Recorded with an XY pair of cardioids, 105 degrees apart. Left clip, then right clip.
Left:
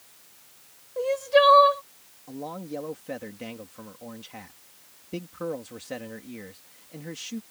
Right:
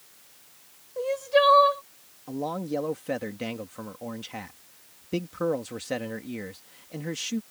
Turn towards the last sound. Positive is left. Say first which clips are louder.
# right 5 dB
turn(degrees=-40)